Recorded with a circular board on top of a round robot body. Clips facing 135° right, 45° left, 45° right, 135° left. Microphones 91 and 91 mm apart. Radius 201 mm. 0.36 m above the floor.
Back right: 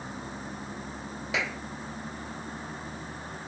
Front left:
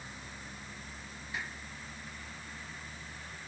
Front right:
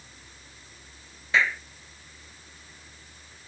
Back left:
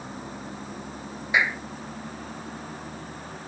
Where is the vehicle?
165° left.